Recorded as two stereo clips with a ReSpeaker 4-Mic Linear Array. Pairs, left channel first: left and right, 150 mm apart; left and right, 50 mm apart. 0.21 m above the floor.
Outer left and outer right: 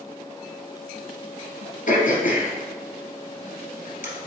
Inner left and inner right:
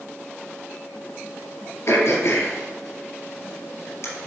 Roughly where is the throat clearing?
Left.